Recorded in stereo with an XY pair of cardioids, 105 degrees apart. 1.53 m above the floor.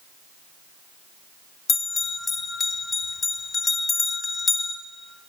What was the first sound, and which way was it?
A bell, 30° left.